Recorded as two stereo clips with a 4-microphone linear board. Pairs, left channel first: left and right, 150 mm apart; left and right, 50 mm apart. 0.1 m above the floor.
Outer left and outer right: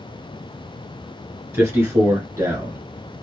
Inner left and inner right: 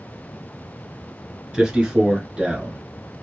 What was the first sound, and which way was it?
A man speaking, 15° right (ahead or behind).